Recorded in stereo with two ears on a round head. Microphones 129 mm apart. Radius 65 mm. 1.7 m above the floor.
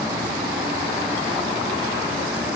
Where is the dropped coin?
No dropped coin in this recording.